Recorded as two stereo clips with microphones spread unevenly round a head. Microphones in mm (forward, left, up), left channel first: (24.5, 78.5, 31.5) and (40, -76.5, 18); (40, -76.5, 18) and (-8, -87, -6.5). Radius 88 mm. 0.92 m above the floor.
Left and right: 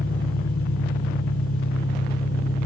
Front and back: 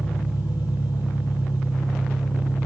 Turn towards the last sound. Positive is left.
turn(degrees=65)